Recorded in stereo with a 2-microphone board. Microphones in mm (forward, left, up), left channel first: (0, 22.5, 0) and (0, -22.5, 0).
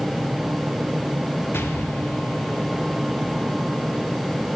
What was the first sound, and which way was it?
An explosion, 55° left (ahead or behind).